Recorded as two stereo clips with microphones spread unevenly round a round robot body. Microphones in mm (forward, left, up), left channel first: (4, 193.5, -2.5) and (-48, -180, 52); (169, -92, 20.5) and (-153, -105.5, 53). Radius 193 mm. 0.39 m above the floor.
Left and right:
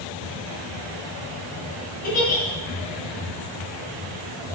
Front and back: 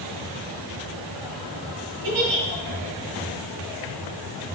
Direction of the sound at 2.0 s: 150° left.